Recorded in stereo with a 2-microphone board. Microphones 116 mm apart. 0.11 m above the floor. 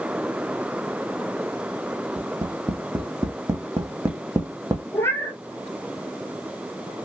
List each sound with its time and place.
2.2 s tapping: 25° right (ahead or behind), 1.1 m
4.9 s a cat meowing: 20° left (ahead or behind), 0.8 m